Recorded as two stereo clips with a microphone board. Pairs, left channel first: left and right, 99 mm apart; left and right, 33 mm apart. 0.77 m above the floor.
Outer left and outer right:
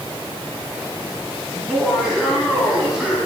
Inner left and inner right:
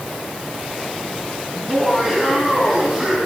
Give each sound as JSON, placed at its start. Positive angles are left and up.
{"t": 1.5, "sound": "laughter", "side_deg": -5, "distance_m": 4.5}